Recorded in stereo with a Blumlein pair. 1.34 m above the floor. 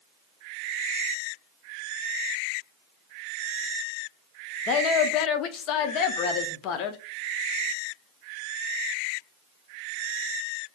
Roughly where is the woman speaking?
Ahead left.